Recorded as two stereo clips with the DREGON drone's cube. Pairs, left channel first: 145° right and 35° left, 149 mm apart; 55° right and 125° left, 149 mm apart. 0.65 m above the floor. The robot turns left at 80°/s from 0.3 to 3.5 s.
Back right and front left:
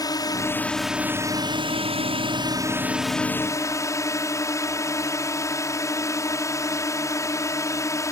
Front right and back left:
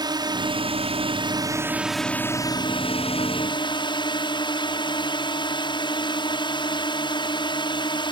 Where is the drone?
165° left; by 8.1 s 90° right.